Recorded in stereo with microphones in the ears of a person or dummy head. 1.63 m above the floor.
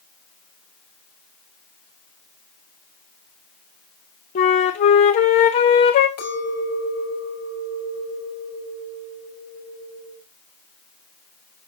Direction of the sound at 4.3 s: 30° left (ahead or behind).